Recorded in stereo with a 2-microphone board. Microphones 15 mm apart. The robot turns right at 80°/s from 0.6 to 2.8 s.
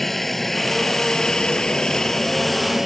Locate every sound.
0.0 s a helicopter: 20° left (ahead or behind); by 2.9 s 15° right (ahead or behind)